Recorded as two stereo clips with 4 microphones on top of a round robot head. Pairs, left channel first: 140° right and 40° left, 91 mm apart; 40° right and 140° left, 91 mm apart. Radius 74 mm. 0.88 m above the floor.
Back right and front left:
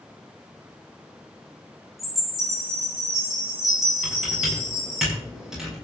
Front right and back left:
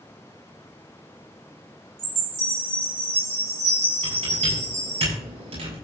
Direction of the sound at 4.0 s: 125° left.